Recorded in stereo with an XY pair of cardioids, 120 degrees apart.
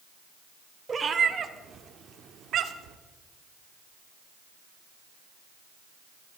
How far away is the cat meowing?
About 1.8 m.